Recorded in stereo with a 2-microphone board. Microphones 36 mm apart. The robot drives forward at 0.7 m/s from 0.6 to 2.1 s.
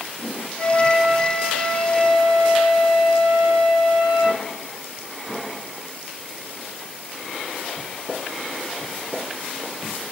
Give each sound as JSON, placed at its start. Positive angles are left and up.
{"t": 0.6, "sound": "a flute", "side_deg": -45, "distance_m": 3.5}